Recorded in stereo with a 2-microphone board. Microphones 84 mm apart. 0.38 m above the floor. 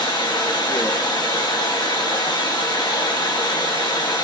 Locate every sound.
0.0 s running water: 60° left (ahead or behind), 2.5 m